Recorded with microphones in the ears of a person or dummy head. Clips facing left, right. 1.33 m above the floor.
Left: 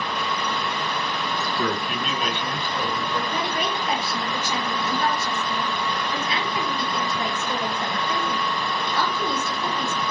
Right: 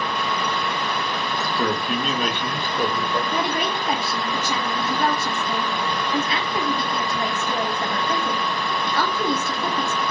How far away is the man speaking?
About 1.0 m.